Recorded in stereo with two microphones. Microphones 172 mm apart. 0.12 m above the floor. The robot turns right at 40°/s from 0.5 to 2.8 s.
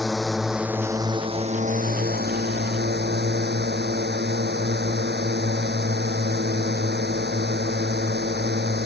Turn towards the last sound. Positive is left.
turn(degrees=-85)